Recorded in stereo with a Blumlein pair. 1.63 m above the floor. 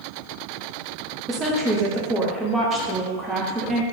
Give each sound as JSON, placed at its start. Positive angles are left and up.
{"t": 1.3, "sound": "a woman speaking", "azimuth_deg": -10, "distance_m": 0.7}